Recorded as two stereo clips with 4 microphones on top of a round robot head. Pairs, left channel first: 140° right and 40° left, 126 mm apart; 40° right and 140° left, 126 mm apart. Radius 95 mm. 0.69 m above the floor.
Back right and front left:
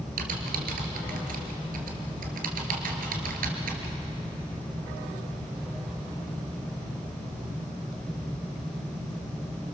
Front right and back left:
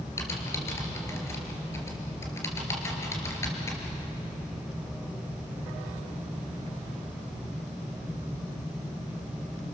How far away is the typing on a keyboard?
About 3 m.